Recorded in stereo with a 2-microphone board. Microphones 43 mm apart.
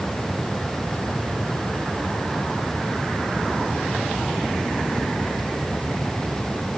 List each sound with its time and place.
Only background noise.